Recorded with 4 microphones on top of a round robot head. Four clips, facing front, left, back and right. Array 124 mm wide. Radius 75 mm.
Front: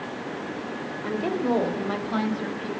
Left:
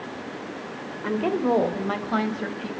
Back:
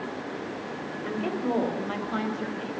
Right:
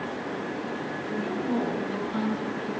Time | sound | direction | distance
1.0 | a woman speaking | 70° left | 3 m